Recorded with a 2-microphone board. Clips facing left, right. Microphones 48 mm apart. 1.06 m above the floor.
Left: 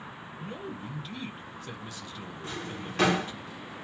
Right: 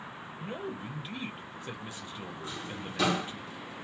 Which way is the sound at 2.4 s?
60° left (ahead or behind).